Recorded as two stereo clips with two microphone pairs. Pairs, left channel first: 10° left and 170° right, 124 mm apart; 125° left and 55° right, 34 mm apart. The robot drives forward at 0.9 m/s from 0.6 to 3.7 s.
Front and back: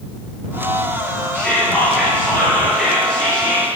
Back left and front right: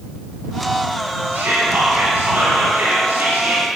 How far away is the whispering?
About 6 m.